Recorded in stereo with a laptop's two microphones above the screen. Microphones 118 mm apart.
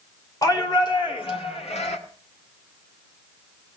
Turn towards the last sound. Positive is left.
turn(degrees=80)